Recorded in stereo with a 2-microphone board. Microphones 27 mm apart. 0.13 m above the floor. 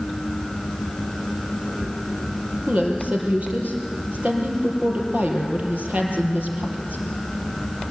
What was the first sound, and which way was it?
A woman speaking, 60° right (ahead or behind).